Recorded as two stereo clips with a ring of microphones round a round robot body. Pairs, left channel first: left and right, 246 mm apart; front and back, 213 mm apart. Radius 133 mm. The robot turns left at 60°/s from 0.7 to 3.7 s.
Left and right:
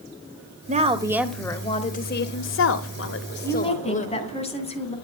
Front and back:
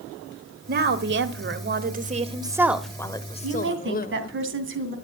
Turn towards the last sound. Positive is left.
turn(degrees=155)